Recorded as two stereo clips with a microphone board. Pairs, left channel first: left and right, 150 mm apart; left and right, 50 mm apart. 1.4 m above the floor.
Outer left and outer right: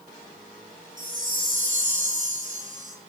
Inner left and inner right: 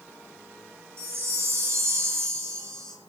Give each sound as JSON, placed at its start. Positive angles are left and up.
{"t": 1.0, "sound": "a chime", "side_deg": -55, "distance_m": 3.0}